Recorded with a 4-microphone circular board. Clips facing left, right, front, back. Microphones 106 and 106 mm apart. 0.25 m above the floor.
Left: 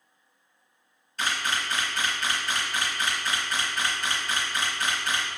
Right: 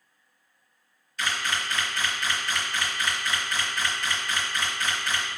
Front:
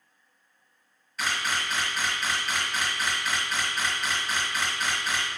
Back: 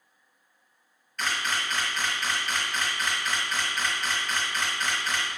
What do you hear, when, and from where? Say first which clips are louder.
1.2 s a camera shutter: even, even; 85° left, 1.5 m